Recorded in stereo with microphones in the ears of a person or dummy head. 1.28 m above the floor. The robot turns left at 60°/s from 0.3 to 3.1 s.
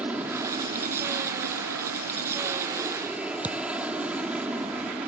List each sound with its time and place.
0.0 s an aircraft: 5° right; by 5.1 s 175° right
3.4 s a thud: 10° right (ahead or behind)